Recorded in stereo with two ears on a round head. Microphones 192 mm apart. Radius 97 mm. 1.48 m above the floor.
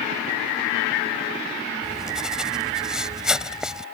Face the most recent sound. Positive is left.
turn(degrees=-5)  # may be behind; listen again after turning